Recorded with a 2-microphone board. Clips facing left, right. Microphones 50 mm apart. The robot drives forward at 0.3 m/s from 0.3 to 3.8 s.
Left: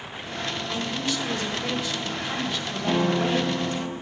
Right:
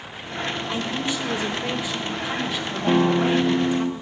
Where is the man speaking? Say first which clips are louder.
Right 1 dB; 15° right (ahead or behind), 1.1 m; by 3.9 s 10° right (ahead or behind), 1.9 m.